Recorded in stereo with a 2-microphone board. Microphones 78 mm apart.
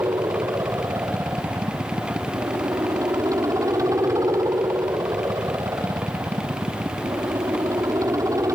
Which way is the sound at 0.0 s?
45° right (ahead or behind).